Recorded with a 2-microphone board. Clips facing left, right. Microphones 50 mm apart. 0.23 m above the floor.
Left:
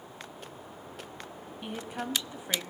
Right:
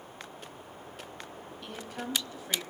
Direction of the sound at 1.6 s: 20° left (ahead or behind).